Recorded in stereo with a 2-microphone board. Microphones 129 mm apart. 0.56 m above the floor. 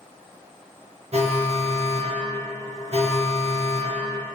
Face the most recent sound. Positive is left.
turn(degrees=-55)  # may be behind; listen again after turning